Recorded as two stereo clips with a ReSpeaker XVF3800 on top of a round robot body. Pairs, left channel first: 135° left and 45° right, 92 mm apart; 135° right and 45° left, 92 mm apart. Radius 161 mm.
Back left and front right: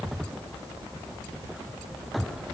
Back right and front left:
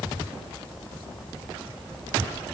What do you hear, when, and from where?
Only background noise.